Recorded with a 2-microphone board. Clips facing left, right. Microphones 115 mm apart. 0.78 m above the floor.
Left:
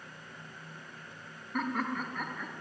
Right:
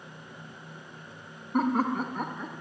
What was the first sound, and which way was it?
Laughter, 35° right (ahead or behind).